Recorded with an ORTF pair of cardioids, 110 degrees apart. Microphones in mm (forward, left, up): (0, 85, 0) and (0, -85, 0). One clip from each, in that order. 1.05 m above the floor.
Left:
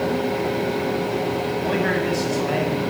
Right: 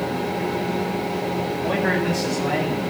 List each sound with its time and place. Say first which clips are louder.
0.0 s a fan: left 2 dB; 20° left, 6.5 m
1.6 s a man speaking: right 1 dB; 5° right, 7 m